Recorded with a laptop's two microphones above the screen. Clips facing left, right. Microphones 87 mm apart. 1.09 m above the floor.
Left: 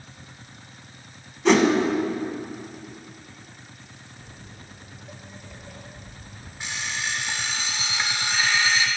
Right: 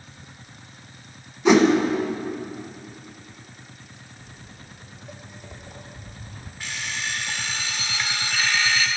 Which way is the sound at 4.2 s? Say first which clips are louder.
Even; 35° left (ahead or behind).